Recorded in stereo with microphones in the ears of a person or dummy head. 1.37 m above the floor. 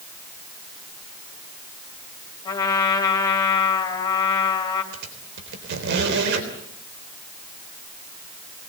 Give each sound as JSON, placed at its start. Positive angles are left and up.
{"t": 2.5, "sound": "a trumpet", "side_deg": 30, "distance_m": 3.5}
{"t": 4.9, "sound": "a squeak", "side_deg": -65, "distance_m": 3.5}